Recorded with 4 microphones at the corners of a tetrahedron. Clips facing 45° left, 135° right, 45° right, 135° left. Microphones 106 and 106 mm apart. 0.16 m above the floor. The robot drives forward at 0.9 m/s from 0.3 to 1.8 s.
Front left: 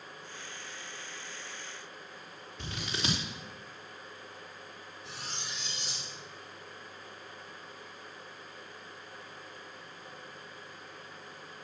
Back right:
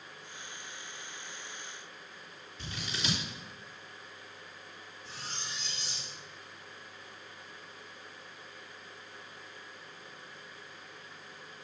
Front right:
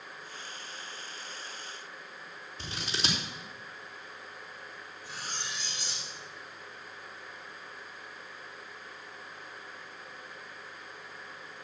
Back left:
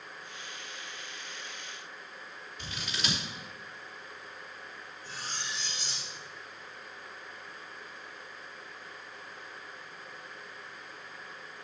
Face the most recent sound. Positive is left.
turn(degrees=30)